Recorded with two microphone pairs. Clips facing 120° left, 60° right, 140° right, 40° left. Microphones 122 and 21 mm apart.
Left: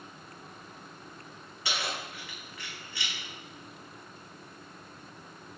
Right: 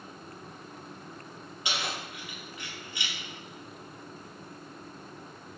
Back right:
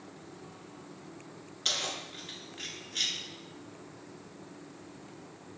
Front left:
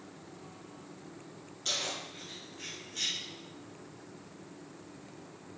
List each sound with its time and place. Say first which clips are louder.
1.6 s keys jangling: even, back right 2 dB; 120° right, 0.9 m